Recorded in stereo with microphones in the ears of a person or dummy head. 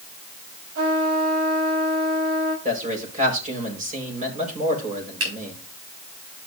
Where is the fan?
No fan in this recording.